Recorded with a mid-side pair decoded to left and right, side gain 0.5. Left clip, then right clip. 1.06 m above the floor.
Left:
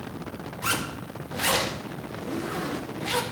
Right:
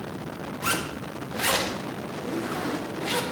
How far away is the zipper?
About 1.1 m.